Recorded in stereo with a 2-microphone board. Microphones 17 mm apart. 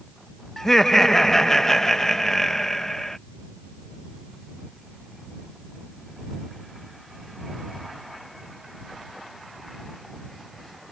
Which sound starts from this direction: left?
Laughter, at 0.6 s.